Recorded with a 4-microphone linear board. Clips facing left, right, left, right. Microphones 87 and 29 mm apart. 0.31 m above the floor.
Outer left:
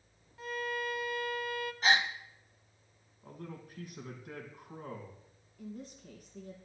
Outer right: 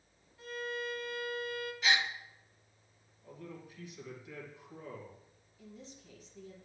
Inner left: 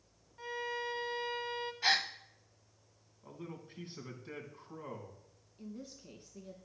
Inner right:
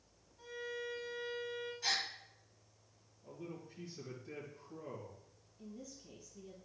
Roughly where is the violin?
Left.